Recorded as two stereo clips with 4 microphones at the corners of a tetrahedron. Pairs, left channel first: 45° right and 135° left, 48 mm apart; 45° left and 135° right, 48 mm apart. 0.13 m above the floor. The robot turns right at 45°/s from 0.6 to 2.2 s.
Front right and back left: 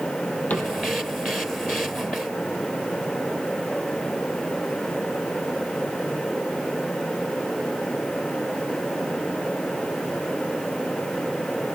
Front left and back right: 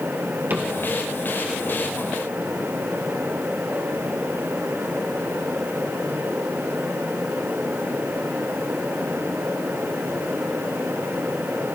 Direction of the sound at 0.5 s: 95° right.